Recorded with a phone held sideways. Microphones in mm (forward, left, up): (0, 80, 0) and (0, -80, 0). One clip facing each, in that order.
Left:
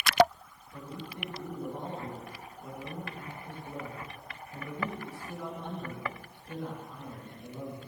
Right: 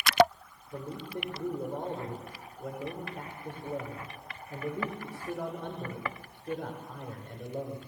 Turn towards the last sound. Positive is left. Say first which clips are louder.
# right 5 dB
turn(degrees=-85)